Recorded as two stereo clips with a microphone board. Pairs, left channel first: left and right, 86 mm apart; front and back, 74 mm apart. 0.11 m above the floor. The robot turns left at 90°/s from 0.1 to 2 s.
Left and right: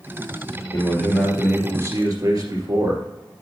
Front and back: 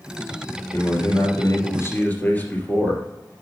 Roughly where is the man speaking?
Ahead left.